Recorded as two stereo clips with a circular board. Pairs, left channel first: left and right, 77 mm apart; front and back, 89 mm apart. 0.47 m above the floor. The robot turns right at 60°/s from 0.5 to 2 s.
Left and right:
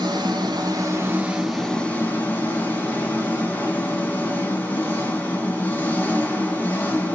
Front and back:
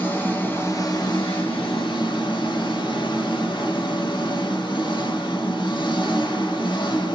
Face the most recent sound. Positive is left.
turn(degrees=25)